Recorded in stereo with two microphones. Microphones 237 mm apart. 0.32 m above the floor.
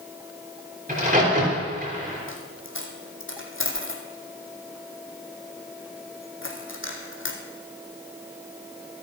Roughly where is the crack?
Right.